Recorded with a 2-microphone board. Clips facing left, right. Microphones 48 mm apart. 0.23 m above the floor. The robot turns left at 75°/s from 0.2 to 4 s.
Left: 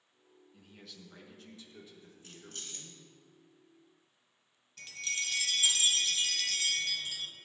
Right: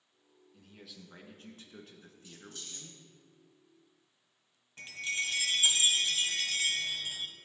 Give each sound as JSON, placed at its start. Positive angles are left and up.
{"t": 0.5, "sound": "a man speaking", "azimuth_deg": 20, "distance_m": 2.0}
{"t": 2.2, "sound": "keys jangling", "side_deg": 60, "distance_m": 1.8}
{"t": 4.8, "sound": "a chime", "side_deg": -25, "distance_m": 1.0}